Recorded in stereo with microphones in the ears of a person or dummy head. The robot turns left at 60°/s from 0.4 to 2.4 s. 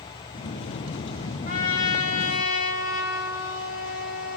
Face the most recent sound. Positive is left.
turn(degrees=85)